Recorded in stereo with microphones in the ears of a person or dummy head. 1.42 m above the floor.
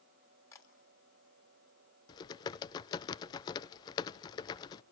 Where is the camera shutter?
20° left (ahead or behind), 2.5 m.